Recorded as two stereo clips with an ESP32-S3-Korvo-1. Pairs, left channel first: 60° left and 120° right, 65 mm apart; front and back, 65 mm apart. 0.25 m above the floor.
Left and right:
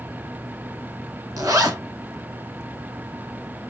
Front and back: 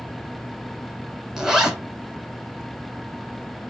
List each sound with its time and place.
1.4 s a zipper: 95° right, 1.0 m